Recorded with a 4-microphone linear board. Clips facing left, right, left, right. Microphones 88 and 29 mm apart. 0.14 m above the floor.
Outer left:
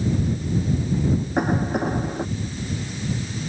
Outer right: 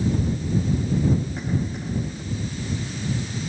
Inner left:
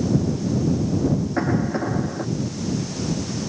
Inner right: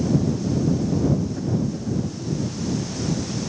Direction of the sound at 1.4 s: 60° left (ahead or behind).